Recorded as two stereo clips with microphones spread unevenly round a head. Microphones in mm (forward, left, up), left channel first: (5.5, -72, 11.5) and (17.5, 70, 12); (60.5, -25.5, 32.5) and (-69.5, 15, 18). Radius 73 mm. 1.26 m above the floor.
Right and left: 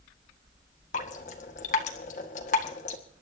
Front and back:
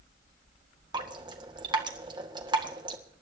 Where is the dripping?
135° right, 1.8 m.